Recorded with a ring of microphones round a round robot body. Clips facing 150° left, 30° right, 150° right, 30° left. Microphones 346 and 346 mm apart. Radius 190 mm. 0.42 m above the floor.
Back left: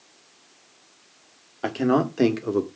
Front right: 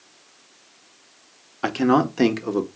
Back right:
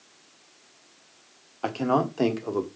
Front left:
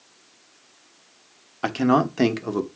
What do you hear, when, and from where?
1.6 s a man speaking: 20° left, 1.6 m; by 2.7 s 50° left, 1.7 m